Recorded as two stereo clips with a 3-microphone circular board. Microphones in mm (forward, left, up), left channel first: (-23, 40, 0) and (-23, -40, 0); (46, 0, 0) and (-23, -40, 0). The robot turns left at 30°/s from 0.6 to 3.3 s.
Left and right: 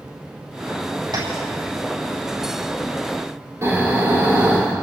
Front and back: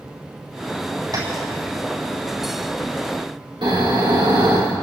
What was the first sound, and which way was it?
Tapping, 110° right.